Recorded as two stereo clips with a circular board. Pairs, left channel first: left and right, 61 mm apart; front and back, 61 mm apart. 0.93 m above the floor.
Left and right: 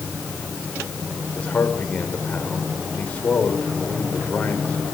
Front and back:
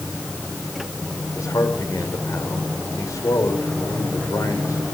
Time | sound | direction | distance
1.4 | a man speaking | 25° left | 4 m